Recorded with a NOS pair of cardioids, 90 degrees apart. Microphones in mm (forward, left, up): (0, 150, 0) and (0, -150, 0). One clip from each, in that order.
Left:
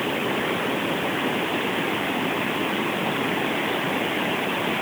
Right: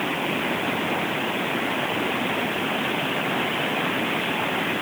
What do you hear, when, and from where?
Only background noise.